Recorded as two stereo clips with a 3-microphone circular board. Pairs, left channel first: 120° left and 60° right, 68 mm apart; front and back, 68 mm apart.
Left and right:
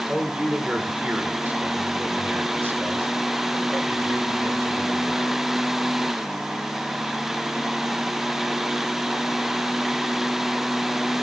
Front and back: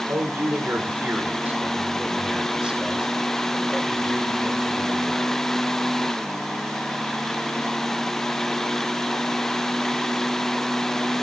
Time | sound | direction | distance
0.1 | a man speaking | 140° right | 2 m